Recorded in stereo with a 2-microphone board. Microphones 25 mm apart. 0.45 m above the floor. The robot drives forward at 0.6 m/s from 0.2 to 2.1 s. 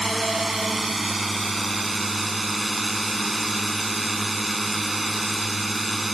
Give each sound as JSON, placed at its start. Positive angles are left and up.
{"t": 0.0, "sound": "a drone", "side_deg": 0}